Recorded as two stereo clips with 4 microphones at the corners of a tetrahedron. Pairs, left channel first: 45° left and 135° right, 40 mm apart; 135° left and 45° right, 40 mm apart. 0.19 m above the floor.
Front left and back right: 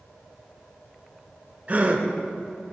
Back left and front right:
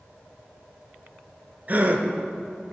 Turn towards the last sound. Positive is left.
turn(degrees=-90)